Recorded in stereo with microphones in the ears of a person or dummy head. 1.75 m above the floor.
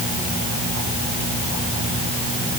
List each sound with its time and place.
Only background noise.